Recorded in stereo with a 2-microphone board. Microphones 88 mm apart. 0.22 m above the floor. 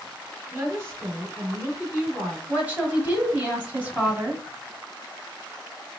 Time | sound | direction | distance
0.5 | a woman speaking | 25° right (ahead or behind) | 1.7 m
2.5 | a woman speaking | 20° right (ahead or behind) | 1.0 m